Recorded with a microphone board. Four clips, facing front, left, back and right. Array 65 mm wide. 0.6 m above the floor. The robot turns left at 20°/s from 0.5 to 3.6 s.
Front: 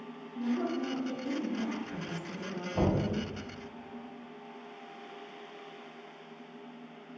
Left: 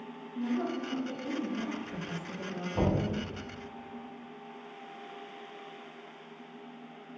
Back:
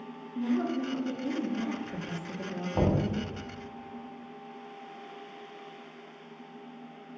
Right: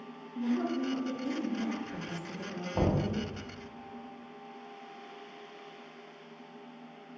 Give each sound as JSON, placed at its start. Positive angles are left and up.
{"t": 0.3, "sound": "a woman speaking", "azimuth_deg": -175, "distance_m": 1.0}
{"t": 2.7, "sound": "knocking", "azimuth_deg": -155, "distance_m": 1.4}